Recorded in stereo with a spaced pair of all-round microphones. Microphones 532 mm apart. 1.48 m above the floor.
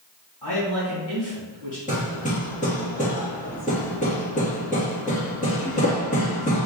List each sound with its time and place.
0.4 s a man speaking: 45° left (ahead or behind), 1.7 m
1.9 s hammering: 15° left (ahead or behind), 1.1 m